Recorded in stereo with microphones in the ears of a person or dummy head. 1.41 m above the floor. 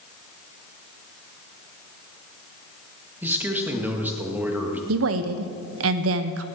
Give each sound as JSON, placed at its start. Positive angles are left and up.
{"t": 3.2, "sound": "a man speaking", "side_deg": -10, "distance_m": 1.8}
{"t": 4.9, "sound": "a woman speaking", "side_deg": -70, "distance_m": 0.8}